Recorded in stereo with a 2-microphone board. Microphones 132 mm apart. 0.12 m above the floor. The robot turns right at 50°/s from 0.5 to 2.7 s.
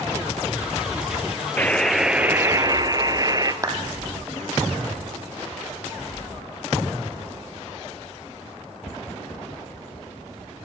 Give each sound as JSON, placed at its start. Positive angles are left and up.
{"t": 1.6, "sound": "a buzzer", "azimuth_deg": 160, "distance_m": 1.7}
{"t": 3.6, "sound": "a clap", "side_deg": -25, "distance_m": 4.0}